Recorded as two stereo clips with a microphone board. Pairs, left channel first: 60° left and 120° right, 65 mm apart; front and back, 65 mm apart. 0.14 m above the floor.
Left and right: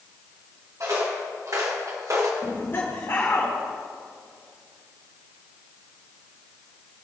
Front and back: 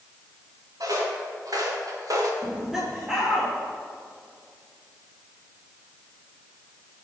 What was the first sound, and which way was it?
Footsteps, 160° right.